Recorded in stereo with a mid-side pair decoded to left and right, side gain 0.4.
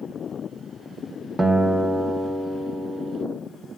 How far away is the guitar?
About 0.8 m.